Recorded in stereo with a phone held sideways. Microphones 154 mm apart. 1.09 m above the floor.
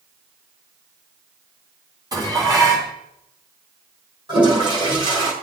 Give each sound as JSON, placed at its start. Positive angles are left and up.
{"t": 2.1, "sound": "dishes clattering", "side_deg": -25, "distance_m": 5.5}
{"t": 4.3, "sound": "a toilet flushing", "side_deg": -35, "distance_m": 6.5}